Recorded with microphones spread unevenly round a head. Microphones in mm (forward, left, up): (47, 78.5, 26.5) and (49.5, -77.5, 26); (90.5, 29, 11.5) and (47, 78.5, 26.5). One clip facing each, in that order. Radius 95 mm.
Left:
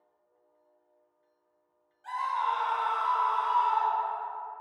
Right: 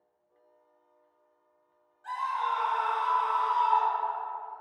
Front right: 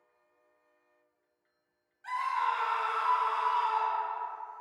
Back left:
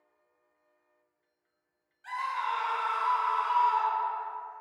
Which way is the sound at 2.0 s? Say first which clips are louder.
Left 1 dB, front right 2 dB; 25° left.